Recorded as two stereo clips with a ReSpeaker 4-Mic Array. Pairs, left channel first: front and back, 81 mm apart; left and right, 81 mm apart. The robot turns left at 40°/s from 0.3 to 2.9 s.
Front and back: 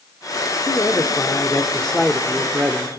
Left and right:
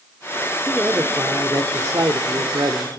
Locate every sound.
0.7 s a man speaking: 30° right, 1.2 m; by 2.9 s 120° right, 1.2 m